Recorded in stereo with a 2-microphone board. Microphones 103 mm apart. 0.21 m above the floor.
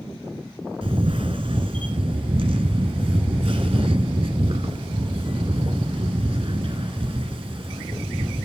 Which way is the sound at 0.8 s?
65° right (ahead or behind).